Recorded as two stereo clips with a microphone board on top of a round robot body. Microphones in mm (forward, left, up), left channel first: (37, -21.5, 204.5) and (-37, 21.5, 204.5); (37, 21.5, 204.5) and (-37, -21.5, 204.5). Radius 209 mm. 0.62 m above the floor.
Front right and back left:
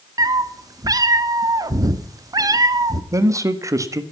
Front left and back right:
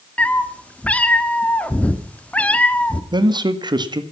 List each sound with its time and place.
0.2 s a cat meowing: 105° left, 1.0 m
3.1 s a man speaking: 165° right, 1.7 m